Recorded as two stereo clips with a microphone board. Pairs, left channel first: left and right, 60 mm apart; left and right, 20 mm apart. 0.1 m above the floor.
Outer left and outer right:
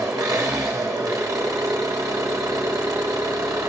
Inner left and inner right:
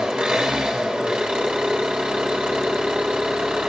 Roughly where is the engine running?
Right.